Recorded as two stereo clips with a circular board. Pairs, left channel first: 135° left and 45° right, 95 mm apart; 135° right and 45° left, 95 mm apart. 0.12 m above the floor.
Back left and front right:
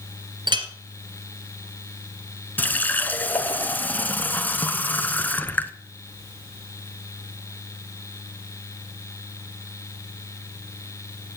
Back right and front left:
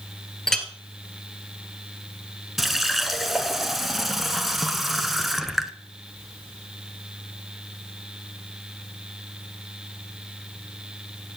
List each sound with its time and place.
0.5 s a clink: 50° right, 1.4 m
2.6 s a running tap: 130° left, 0.7 m